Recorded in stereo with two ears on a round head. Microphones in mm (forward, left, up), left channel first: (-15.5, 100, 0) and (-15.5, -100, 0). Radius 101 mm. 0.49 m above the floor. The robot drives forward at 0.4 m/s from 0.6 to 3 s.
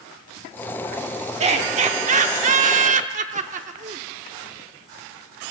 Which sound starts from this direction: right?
Laughter, at 1.4 s.